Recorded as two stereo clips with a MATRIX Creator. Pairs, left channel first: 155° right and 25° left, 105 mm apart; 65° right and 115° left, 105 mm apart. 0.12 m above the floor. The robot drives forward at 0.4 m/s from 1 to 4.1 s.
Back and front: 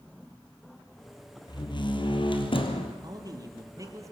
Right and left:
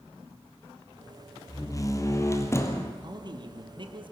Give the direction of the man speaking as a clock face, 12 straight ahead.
10 o'clock.